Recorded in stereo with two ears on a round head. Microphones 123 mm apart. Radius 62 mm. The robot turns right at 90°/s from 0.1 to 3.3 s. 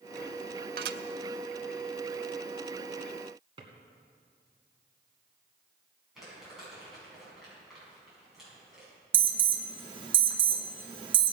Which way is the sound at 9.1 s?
35° right (ahead or behind).